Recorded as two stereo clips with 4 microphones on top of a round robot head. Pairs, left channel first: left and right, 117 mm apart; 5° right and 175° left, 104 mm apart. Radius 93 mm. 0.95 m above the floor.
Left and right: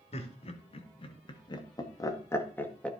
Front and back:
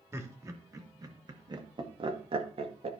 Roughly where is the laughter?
Behind left.